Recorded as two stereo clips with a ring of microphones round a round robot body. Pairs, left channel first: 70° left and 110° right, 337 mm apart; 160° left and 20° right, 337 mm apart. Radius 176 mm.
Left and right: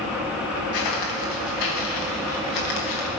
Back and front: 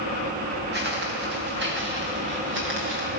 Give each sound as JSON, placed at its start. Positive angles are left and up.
{"t": 0.7, "sound": "footsteps", "azimuth_deg": 40, "distance_m": 6.0}